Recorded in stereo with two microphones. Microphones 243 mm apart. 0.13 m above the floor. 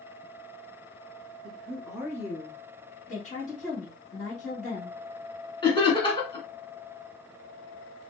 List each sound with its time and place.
1.4 s a woman speaking: 10° right (ahead or behind), 1.3 m
3.1 s a woman speaking: 30° left (ahead or behind), 1.4 m
5.6 s laughter: 20° left (ahead or behind), 1.3 m